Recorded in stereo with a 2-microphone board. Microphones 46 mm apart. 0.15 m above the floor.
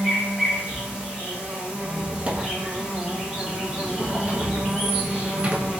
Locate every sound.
0.0 s an insect: 20° right (ahead or behind), 1.2 m
1.8 s a squeak: 25° right (ahead or behind), 0.6 m